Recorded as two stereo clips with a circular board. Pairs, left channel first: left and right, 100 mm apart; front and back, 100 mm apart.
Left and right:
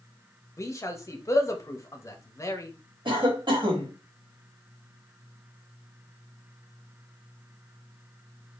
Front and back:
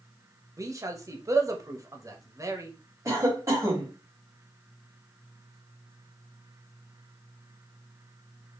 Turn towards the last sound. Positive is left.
turn(degrees=-125)